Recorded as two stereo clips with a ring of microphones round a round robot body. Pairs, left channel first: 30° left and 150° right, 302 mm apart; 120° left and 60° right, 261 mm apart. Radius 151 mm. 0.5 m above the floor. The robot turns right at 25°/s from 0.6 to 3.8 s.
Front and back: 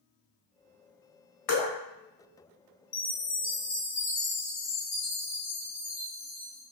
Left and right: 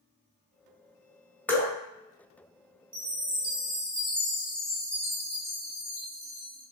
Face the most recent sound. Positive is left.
turn(degrees=35)